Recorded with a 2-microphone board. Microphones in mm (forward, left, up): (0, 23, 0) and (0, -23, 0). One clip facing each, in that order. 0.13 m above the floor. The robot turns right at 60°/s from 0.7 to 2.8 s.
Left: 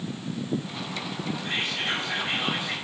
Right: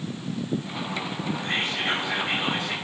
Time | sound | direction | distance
1.4 | whispering | 55° right | 6 m